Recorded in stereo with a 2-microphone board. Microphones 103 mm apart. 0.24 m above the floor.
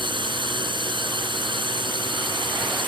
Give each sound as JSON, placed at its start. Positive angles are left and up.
{"t": 0.0, "sound": "a drone", "side_deg": -50}